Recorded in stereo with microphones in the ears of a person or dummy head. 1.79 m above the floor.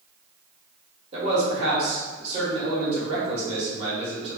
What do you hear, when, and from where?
1.1 s a man speaking: 35° right (ahead or behind), 1.5 m